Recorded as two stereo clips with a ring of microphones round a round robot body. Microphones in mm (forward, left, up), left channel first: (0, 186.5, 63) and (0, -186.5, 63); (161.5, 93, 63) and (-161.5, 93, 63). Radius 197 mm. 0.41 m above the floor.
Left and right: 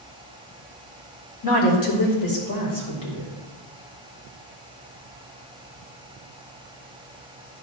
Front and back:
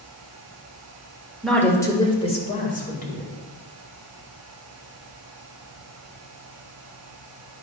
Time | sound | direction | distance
1.4 | a woman speaking | 90° left | 1.8 m